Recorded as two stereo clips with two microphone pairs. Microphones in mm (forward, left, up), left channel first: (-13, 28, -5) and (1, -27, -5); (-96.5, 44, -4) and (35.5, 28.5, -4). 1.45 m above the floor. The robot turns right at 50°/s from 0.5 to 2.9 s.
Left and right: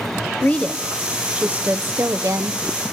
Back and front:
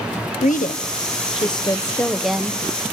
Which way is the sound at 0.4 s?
170° left.